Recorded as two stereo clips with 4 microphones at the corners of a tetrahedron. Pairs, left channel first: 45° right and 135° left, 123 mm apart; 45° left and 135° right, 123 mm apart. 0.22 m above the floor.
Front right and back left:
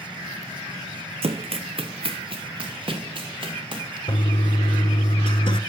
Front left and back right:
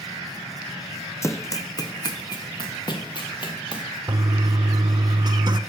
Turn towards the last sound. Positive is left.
turn(degrees=-85)